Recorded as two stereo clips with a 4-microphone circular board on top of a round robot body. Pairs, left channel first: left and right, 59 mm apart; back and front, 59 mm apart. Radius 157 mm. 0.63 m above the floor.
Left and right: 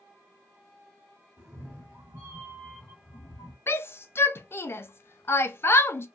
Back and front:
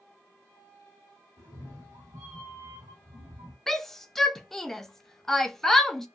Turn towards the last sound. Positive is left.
turn(degrees=95)